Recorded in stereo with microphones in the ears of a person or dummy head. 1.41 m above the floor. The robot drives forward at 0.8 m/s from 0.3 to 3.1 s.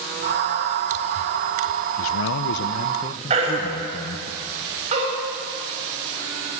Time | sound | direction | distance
2.0 | a man speaking | 65° left (ahead or behind) | 0.6 m
3.3 | a baby crying | 40° right (ahead or behind) | 6 m